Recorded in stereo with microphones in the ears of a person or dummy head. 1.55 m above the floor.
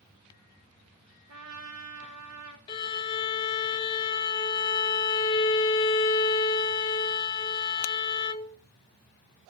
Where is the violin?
25° left (ahead or behind), 0.9 m.